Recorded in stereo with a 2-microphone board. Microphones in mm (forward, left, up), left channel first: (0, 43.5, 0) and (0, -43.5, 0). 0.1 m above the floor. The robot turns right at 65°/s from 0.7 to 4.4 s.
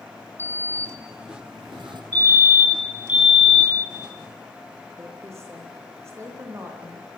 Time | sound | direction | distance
0.4 | a sliding door | 150° right | 1.4 m
2.1 | a fire alarm | 85° right | 3.5 m
5.0 | a woman speaking | 30° right (ahead or behind) | 5.5 m